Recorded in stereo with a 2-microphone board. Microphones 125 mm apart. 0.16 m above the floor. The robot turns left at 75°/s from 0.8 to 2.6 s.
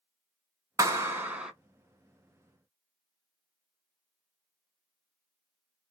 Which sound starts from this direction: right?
A clap, at 0.8 s.